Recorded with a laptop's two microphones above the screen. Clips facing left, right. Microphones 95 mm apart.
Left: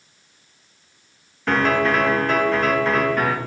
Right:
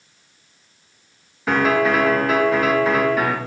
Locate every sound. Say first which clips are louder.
1.5 s a piano: right 1 dB; 5° right (ahead or behind), 1.4 m